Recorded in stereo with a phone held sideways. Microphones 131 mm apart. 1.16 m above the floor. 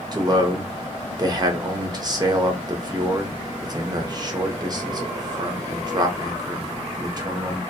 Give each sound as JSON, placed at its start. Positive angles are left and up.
{"t": 0.1, "sound": "a man speaking", "side_deg": -30, "distance_m": 0.6}